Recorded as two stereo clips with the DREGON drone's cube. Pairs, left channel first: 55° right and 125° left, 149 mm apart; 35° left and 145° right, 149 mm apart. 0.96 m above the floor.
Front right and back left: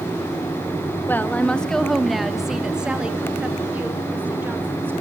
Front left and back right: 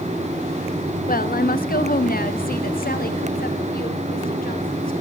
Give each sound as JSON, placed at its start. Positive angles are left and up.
{"t": 1.1, "sound": "a woman speaking", "azimuth_deg": 20, "distance_m": 1.2}